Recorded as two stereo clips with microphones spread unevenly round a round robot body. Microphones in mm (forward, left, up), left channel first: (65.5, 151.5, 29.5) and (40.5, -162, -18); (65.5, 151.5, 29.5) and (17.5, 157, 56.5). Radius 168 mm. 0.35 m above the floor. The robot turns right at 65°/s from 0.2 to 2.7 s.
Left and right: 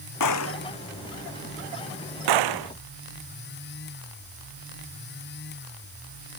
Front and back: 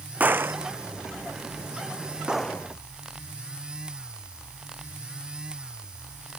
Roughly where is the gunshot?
Behind left.